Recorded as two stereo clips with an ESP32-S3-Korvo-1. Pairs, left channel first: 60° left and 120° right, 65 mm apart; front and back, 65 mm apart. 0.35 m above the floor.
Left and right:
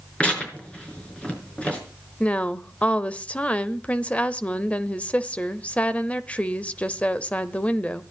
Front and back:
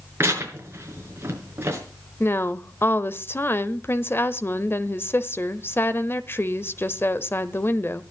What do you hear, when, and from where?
0.2 s tearing paper: 130° left, 5 m
2.2 s a woman speaking: 5° left, 1.0 m